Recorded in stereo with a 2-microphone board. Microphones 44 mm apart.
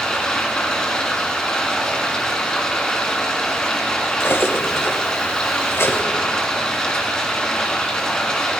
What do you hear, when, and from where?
0.0 s running water: 15° left (ahead or behind), 4 m
4.2 s cutlery clinking: 80° left, 2 m